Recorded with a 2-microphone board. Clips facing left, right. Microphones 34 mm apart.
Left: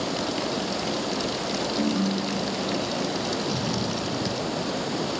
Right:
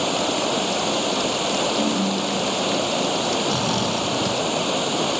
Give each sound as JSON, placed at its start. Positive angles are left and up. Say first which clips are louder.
{"t": 0.0, "sound": "running water", "louder": "right 6 dB", "side_deg": -75}
{"t": 1.8, "sound": "a ringtone", "louder": "right 3 dB", "side_deg": -10}
{"t": 3.5, "sound": "snoring", "louder": "right 5 dB", "side_deg": -85}